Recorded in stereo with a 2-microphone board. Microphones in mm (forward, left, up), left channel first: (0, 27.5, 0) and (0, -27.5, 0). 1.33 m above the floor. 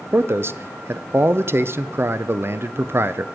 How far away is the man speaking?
About 0.5 m.